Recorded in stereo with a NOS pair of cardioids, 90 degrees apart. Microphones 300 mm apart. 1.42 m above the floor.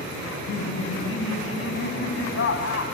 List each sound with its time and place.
0.3 s laughter: 45° left, 9 m